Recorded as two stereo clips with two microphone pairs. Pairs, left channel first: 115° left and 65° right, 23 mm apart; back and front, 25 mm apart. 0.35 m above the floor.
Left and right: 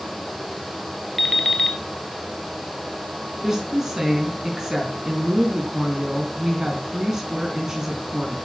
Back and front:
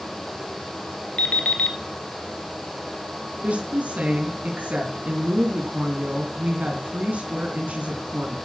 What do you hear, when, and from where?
1.2 s an alarm clock: 165° right, 2.5 m
3.4 s a woman speaking: 5° right, 3.5 m